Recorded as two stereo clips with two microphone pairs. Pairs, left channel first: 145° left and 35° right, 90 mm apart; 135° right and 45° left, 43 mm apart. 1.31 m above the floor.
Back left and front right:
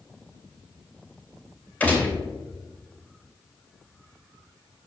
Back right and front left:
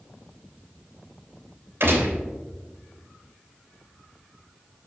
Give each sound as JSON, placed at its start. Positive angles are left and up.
{"t": 1.8, "sound": "a gunshot", "azimuth_deg": 70, "distance_m": 2.5}